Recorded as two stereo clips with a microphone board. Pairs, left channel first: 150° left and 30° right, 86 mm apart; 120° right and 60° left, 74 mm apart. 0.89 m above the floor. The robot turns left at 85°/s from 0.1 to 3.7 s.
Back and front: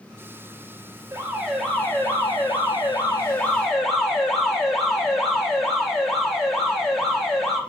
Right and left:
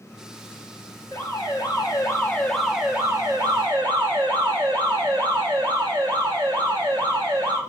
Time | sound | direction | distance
1.1 | an alarm | 80° right | 1.2 m